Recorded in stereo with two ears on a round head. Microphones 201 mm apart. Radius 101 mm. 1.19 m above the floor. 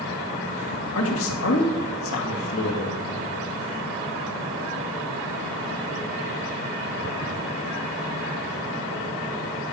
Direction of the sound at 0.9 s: 60° left (ahead or behind).